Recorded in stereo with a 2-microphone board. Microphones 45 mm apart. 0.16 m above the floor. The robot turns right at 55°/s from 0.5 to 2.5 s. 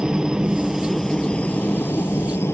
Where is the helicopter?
20° right; by 2.5 s 90° left.